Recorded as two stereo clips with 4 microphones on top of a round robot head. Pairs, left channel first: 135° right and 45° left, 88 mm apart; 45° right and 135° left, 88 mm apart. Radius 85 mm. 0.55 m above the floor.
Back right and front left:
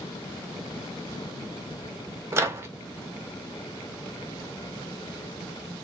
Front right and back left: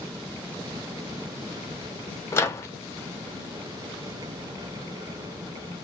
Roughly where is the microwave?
Ahead.